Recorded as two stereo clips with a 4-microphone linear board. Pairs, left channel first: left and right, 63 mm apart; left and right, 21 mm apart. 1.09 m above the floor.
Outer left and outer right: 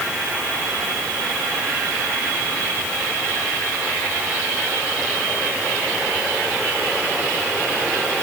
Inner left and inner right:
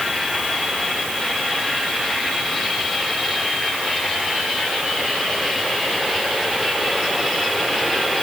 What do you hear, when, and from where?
Only background noise.